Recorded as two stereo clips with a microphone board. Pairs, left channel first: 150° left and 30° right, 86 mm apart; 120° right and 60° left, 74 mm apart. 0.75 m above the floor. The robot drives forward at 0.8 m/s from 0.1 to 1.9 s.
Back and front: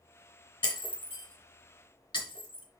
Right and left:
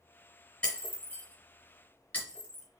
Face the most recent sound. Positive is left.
turn(degrees=170)